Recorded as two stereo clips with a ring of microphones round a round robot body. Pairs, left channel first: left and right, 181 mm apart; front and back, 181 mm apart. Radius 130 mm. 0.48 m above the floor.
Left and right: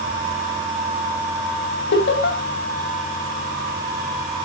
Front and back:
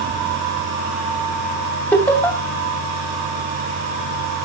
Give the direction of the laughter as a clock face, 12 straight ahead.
9 o'clock.